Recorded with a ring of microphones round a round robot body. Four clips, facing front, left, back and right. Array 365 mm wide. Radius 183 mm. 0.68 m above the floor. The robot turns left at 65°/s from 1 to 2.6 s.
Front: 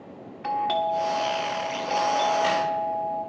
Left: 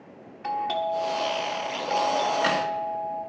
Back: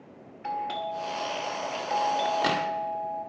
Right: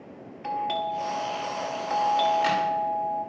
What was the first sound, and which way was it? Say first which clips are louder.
A doorbell: left 1 dB, front 7 dB; 10° right.